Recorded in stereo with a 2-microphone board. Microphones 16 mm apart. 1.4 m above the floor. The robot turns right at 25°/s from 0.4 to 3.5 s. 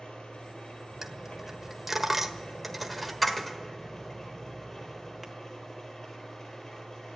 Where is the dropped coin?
30° right (ahead or behind), 1.3 m; by 5.3 s 10° left (ahead or behind), 1.3 m.